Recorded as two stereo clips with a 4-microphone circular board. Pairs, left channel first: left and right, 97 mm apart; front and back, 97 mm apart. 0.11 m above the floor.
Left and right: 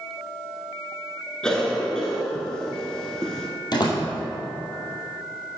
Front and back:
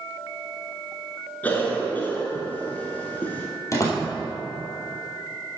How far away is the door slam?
About 2 m.